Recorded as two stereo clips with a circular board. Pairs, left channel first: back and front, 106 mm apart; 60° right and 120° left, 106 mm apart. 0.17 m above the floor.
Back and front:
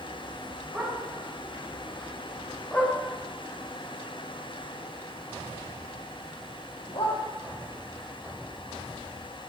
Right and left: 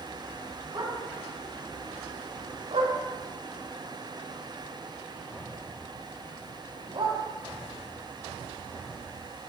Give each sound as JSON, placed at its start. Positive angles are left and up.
{"t": 0.7, "sound": "a dog barking", "azimuth_deg": 75, "distance_m": 7.0}